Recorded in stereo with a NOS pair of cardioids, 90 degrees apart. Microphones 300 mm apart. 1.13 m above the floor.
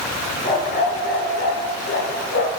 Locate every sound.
0.4 s a dog barking: 30° left, 6 m; by 2.5 s 50° left, 6.5 m